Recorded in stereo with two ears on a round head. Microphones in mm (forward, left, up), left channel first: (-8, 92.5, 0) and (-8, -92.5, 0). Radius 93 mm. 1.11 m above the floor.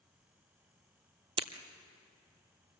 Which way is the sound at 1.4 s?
25° right (ahead or behind).